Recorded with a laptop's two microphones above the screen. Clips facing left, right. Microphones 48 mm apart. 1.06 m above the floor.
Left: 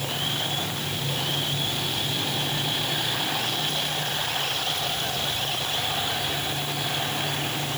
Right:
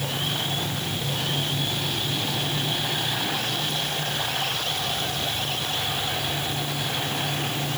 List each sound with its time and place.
Only background noise.